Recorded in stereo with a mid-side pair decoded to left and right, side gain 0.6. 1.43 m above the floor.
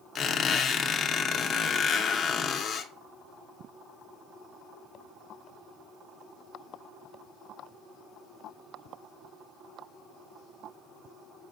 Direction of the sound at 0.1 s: 35° left.